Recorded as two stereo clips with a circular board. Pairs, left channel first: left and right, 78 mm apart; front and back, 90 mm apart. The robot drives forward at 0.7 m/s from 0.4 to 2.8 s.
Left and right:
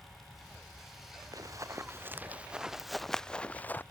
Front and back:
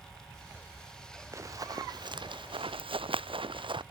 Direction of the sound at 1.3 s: 125° right.